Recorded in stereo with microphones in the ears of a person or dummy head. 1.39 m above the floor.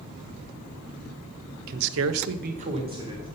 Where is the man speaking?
50° right (ahead or behind), 0.7 m; by 3.2 s 20° right (ahead or behind), 1.4 m.